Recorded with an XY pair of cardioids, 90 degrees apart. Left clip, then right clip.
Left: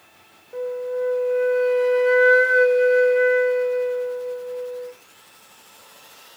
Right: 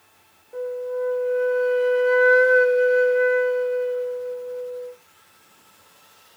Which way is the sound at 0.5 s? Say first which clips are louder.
Left 1 dB; 30° left.